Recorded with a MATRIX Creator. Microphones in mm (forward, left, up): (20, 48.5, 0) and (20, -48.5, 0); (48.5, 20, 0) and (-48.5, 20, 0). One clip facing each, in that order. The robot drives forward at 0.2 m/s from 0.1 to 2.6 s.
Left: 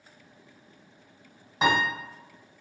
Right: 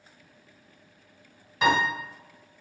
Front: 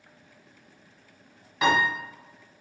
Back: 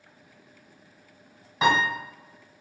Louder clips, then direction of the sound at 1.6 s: Right 1 dB, back 1 dB; 140° left.